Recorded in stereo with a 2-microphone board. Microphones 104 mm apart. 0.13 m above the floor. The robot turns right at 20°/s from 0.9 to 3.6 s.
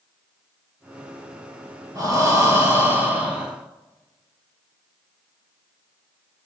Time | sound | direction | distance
1.9 | breathing | 40° right | 1.6 m